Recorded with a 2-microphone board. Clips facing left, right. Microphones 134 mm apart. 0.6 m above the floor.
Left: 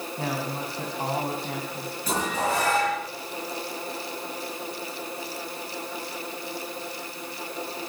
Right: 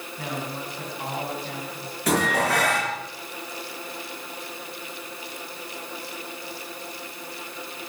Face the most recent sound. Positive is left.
turn(degrees=-80)